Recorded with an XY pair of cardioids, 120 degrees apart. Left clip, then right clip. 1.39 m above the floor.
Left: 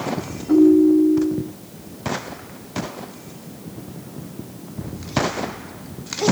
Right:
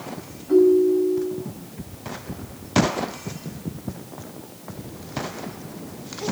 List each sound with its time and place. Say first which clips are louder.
0.5 s a ringtone: left 2 dB; 50° left, 3 m